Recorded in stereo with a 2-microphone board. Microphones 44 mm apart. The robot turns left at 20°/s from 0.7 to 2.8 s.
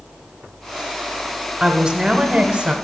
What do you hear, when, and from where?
1.6 s a woman speaking: 20° right (ahead or behind), 0.9 m; by 2.8 s 30° right (ahead or behind), 0.9 m